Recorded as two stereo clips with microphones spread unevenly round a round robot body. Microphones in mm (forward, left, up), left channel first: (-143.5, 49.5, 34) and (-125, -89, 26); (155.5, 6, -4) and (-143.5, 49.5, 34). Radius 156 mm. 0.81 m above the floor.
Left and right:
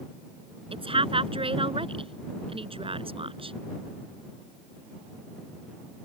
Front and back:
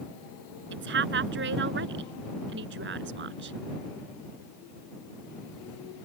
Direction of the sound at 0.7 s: 130° right.